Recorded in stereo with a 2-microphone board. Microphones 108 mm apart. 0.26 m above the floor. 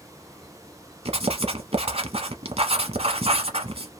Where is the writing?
70° right (ahead or behind), 0.8 m.